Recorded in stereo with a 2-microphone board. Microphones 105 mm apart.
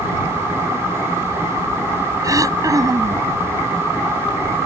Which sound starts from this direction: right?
Throat clearing, at 2.2 s.